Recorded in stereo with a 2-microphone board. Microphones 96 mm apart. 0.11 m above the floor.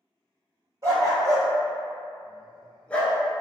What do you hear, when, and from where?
0.8 s a dog barking: 35° right (ahead or behind), 1.4 m; by 3.2 s 20° left (ahead or behind), 0.7 m